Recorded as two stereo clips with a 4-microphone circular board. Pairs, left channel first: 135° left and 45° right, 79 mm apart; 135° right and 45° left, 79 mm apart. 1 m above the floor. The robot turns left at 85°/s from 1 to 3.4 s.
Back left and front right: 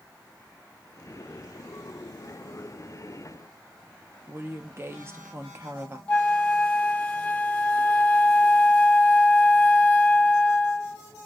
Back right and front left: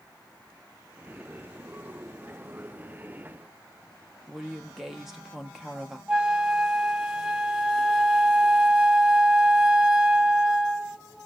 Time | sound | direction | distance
4.3 | a woman speaking | 40° right | 0.6 m
6.1 | a flute | 105° left | 0.5 m